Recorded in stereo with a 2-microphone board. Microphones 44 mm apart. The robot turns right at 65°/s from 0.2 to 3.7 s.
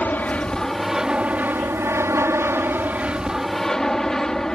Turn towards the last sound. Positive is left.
turn(degrees=10)  # may be behind; listen again after turning